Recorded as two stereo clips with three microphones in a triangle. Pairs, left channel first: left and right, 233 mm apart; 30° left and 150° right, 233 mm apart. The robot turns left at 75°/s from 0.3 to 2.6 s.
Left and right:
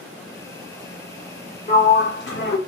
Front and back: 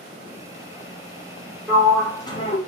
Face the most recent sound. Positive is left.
turn(degrees=70)